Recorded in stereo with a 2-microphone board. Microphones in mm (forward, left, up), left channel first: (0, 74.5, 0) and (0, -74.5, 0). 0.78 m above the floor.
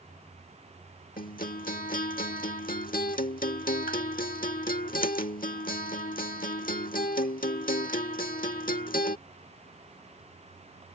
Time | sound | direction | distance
1.2 | a guitar | 70° left (ahead or behind) | ?